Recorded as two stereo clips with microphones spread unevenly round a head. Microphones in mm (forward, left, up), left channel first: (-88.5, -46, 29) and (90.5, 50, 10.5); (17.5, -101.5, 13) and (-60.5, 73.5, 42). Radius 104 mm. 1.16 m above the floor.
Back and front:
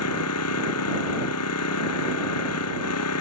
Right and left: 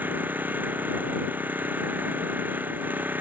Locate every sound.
0.0 s an engine running: 165° right